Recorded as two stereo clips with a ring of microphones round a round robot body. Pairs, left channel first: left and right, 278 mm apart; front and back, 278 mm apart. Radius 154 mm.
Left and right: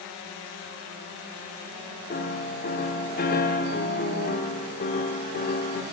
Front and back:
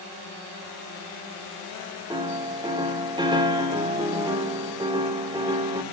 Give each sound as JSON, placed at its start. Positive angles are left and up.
{"t": 2.1, "sound": "a piano", "azimuth_deg": 115, "distance_m": 0.9}